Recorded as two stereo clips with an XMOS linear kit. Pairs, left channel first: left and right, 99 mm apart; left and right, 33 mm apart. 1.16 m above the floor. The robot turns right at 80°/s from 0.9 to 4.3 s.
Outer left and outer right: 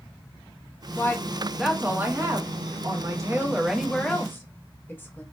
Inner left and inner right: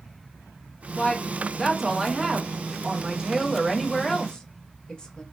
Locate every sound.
1.0 s a woman speaking: 130° left, 0.6 m; by 5.2 s 40° left, 0.6 m